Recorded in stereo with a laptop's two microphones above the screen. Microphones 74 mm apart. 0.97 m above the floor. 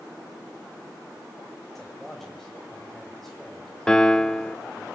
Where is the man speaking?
5° left (ahead or behind), 5 m.